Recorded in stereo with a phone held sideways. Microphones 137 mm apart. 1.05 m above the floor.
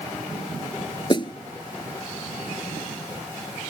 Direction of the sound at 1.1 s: 35° left (ahead or behind).